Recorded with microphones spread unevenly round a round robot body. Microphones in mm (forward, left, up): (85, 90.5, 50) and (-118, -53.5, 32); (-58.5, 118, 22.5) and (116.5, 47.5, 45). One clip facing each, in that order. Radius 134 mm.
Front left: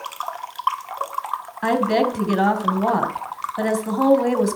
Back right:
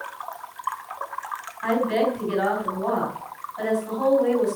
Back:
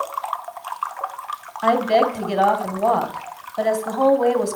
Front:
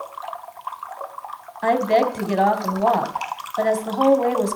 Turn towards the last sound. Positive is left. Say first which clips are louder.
# front left 2 dB, back 1 dB
turn(degrees=65)